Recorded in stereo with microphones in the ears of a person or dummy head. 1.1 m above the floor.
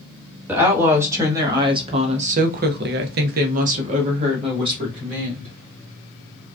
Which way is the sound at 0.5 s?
15° right (ahead or behind).